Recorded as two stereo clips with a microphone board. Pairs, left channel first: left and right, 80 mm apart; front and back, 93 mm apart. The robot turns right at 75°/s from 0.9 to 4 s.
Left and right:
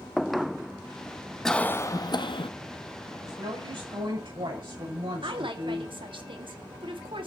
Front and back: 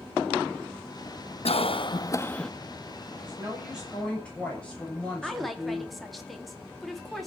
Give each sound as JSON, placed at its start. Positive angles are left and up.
{"t": 1.4, "sound": "a cough", "azimuth_deg": 5, "distance_m": 1.2}
{"t": 3.2, "sound": "a woman speaking", "azimuth_deg": -140, "distance_m": 7.0}
{"t": 5.2, "sound": "a woman speaking", "azimuth_deg": -90, "distance_m": 2.5}